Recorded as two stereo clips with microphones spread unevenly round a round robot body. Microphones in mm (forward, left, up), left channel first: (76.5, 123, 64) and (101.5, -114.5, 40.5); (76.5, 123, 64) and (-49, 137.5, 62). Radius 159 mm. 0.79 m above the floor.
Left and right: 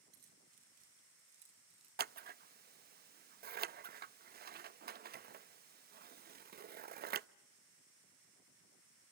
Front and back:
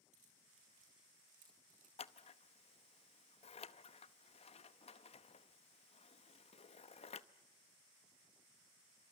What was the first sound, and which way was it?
Keys jangling, 140° right.